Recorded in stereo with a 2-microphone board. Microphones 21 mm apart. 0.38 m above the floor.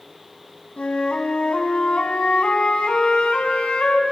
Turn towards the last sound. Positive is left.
turn(degrees=65)  # may be behind; listen again after turning